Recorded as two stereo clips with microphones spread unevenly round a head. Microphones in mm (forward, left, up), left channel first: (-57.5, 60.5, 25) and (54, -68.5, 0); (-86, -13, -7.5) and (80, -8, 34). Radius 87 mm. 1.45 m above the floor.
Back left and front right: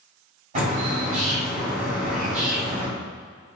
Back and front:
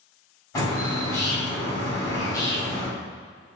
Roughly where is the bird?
Right.